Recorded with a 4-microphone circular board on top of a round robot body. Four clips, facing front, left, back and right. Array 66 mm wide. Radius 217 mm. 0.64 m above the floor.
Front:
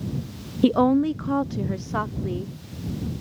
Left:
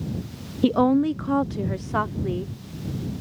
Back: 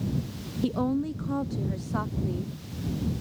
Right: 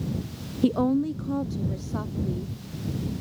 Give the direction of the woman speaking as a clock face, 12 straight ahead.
11 o'clock.